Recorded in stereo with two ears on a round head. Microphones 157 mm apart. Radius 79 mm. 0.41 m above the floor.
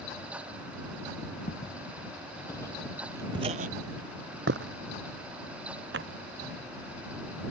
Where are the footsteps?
40° left (ahead or behind); by 6.2 s 70° right (ahead or behind).